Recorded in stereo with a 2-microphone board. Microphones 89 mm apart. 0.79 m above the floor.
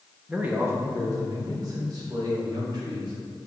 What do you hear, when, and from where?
0.3 s a man speaking: 10° right (ahead or behind), 1.0 m; by 3.1 s 50° right (ahead or behind), 4.5 m